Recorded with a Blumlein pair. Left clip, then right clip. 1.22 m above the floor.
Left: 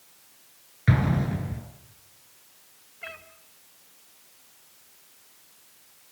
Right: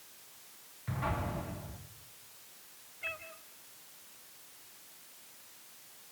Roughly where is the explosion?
Ahead left.